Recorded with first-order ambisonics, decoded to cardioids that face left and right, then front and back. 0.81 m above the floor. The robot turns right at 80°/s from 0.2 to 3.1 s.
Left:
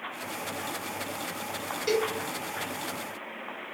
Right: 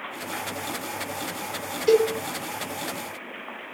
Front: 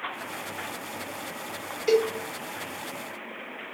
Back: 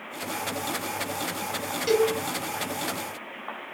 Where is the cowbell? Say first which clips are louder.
Right 8 dB, even; 165° left, 1.8 m; by 2.1 s 175° right, 1.8 m.